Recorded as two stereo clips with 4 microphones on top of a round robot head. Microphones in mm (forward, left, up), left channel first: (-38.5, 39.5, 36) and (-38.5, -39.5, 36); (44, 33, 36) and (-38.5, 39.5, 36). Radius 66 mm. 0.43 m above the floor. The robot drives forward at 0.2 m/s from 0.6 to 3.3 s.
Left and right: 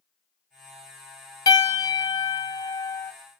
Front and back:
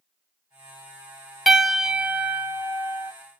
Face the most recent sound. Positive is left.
turn(degrees=130)